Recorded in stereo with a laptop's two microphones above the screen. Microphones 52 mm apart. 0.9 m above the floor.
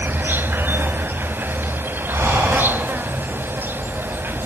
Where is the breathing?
80° right, 9.5 m.